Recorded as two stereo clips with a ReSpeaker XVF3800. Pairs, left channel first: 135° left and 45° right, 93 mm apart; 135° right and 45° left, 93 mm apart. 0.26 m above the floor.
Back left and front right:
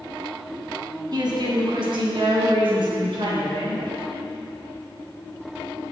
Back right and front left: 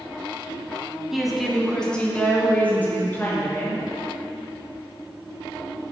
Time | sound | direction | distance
1.1 | a woman speaking | 40° right | 1.9 m